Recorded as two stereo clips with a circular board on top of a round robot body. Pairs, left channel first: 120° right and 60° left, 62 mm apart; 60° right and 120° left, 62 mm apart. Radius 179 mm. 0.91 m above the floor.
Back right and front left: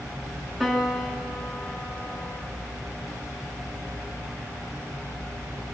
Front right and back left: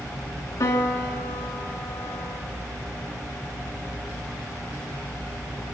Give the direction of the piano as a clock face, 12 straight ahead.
1 o'clock.